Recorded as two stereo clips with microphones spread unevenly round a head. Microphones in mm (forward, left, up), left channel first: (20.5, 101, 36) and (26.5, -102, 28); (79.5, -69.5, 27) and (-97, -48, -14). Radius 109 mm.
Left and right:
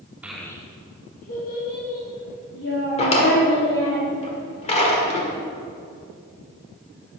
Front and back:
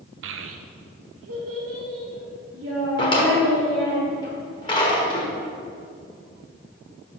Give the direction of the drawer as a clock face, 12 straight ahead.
11 o'clock.